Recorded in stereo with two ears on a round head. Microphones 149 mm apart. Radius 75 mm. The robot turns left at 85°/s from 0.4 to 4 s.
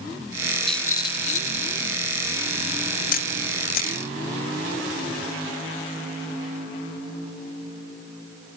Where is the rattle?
Straight behind, 0.8 m; by 1.8 s 90° left, 0.8 m.